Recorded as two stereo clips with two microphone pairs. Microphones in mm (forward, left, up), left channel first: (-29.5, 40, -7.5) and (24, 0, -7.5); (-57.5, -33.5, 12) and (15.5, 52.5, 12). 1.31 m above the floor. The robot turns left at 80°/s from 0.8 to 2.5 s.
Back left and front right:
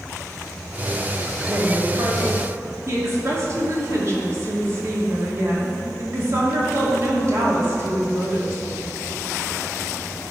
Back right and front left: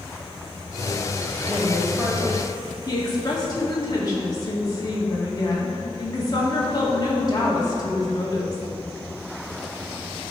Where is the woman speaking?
5° left, 2 m; by 8.6 s 80° right, 2 m.